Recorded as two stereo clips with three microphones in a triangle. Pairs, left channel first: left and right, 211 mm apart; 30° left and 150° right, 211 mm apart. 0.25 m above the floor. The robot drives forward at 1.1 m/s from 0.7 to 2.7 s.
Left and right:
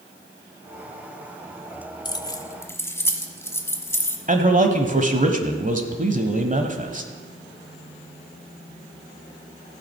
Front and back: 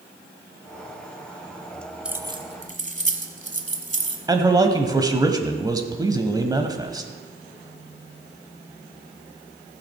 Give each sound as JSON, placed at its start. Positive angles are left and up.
{"t": 2.0, "sound": "keys jangling", "azimuth_deg": 130, "distance_m": 0.6}
{"t": 4.3, "sound": "a man speaking", "azimuth_deg": -90, "distance_m": 1.1}